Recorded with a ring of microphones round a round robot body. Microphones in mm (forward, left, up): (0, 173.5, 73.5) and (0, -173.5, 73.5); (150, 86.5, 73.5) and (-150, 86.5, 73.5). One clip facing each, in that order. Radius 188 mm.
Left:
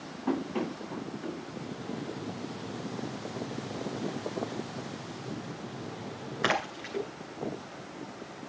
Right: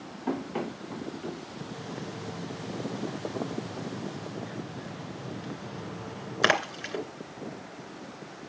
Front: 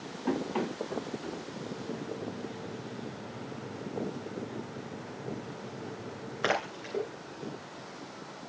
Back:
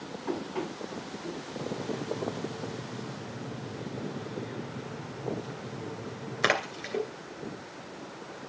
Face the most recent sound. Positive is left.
turn(degrees=-120)